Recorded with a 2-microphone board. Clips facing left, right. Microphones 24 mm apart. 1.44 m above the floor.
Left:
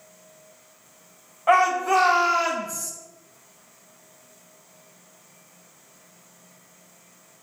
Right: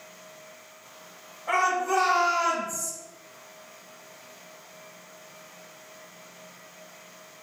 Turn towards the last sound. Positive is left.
turn(degrees=45)  # may be behind; listen again after turning